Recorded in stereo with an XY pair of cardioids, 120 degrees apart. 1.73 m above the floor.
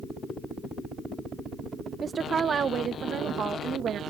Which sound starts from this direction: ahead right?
A woman speaking, at 2.0 s.